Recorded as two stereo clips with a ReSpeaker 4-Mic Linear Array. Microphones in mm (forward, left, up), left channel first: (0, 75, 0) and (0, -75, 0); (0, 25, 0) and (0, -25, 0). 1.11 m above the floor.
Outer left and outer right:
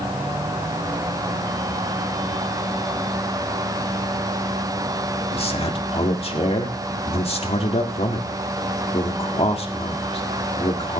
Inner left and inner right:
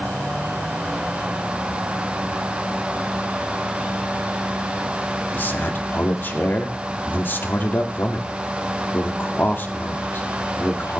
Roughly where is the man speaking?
Left.